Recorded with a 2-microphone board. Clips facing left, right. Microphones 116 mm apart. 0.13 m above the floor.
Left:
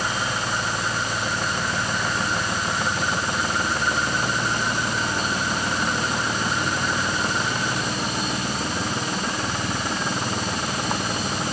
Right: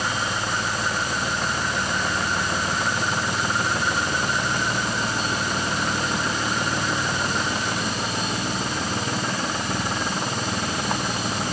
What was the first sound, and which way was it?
Only background noise.